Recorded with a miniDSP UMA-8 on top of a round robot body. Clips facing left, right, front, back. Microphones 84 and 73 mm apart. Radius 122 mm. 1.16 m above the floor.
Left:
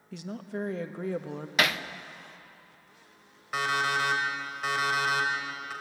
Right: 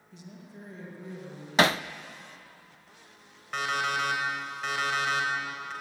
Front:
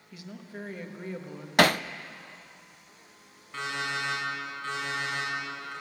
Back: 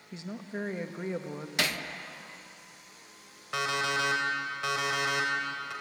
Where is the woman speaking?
115° left, 1.4 m.